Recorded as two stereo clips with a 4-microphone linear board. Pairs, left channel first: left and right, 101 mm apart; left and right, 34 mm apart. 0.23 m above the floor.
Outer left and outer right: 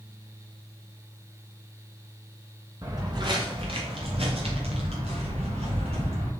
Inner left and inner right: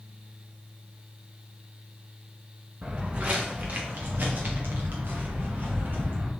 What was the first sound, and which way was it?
Footsteps, 35° right (ahead or behind).